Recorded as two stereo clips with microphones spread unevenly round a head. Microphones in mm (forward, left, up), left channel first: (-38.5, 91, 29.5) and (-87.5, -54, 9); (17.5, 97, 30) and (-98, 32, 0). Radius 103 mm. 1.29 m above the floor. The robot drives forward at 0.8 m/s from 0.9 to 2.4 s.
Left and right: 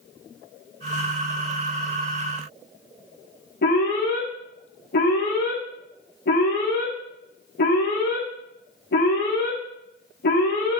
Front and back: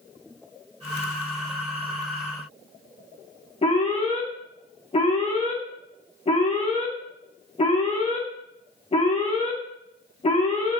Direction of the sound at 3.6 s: 75° left.